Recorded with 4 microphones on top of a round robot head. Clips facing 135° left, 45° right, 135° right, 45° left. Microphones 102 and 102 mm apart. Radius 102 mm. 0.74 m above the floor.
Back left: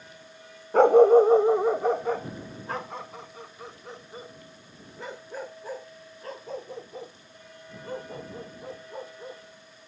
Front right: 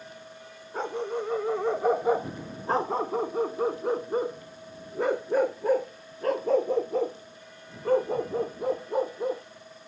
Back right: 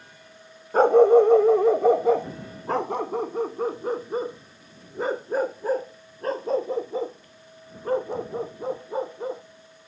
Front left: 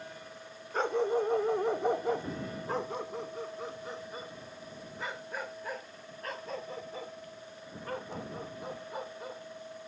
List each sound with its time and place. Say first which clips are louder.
0.7 s a dog barking: back left 16 dB, back right 15 dB; 170° left; by 9.4 s 75° right